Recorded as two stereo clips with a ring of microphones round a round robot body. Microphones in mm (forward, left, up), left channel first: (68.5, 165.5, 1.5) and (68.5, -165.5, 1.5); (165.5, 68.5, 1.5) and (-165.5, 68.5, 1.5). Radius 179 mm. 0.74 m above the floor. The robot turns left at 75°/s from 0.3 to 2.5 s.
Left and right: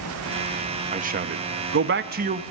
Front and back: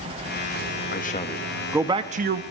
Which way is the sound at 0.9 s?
35° right.